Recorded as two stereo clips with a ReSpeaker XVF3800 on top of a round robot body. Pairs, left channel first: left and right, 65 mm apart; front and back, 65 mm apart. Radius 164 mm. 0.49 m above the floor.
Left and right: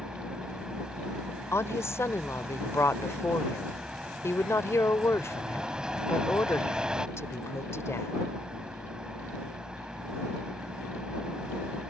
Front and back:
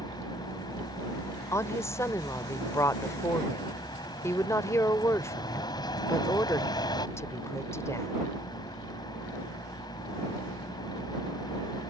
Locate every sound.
0.0 s a vehicle: 10° right
1.5 s a woman speaking: 45° left